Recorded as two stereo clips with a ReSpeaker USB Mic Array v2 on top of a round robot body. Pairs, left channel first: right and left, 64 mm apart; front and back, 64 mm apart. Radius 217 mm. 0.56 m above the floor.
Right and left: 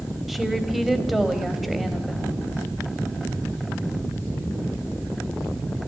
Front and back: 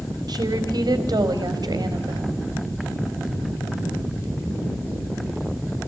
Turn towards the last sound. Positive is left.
turn(degrees=170)